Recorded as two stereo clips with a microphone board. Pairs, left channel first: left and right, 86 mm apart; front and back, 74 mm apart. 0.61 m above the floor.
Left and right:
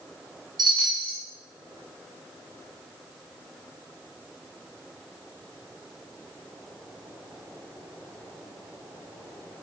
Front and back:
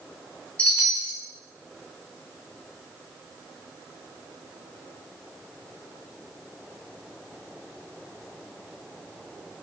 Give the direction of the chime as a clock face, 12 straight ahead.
2 o'clock.